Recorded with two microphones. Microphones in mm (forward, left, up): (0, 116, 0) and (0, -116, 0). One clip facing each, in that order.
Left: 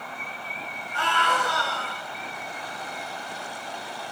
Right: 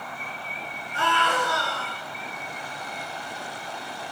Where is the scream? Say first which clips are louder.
Right 2 dB; 25° right (ahead or behind), 2.0 m.